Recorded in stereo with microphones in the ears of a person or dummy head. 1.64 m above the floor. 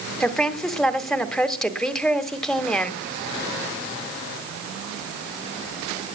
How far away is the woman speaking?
About 1.8 m.